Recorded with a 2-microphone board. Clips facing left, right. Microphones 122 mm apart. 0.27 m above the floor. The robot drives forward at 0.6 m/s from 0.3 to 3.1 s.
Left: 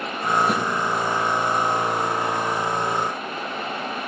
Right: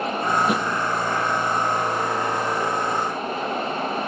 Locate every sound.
0.5 s a thud: centre (ahead or behind), 2 m